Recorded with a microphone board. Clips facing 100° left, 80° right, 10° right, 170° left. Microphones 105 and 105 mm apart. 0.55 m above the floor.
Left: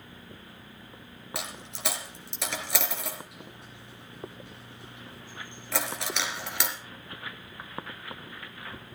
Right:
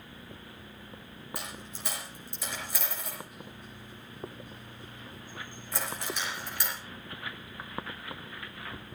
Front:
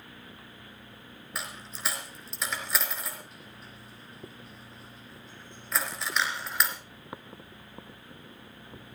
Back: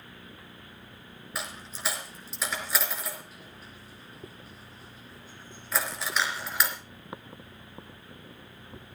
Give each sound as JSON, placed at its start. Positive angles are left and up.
{"t": 1.4, "sound": "a dropped coin", "azimuth_deg": 80, "distance_m": 3.5}